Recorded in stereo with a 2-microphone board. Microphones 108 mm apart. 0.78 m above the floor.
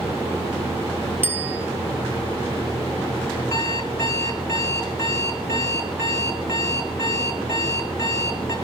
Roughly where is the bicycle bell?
Centre.